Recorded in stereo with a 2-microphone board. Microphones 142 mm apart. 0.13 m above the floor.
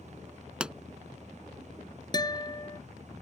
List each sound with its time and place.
0.6 s a pop: 5° right (ahead or behind)
2.1 s a guitar: 30° left (ahead or behind)